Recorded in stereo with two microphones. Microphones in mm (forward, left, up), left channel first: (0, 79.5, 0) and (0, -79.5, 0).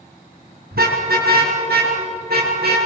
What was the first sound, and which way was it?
A car horn, 75° right (ahead or behind).